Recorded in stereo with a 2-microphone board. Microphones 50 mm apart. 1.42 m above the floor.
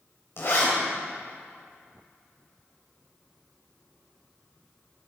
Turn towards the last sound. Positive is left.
turn(degrees=55)  # may be behind; listen again after turning